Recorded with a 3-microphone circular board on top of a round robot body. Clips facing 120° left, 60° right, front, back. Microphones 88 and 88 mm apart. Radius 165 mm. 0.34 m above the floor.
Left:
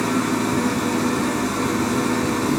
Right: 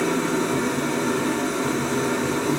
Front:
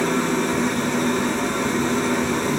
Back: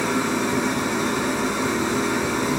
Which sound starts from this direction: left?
An engine running, at 0.0 s.